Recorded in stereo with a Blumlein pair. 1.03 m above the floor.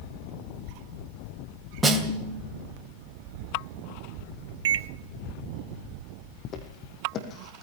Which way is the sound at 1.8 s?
15° right.